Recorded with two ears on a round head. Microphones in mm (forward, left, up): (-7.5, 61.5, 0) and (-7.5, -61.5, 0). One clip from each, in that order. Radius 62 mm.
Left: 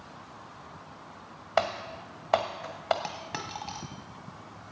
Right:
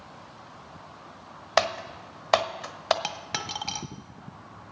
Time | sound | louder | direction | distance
1.6 | typing on a keyboard | right 3 dB | 75° right (ahead or behind) | 1.2 m
3.0 | a dropped coin | right 4 dB | 55° right (ahead or behind) | 1.1 m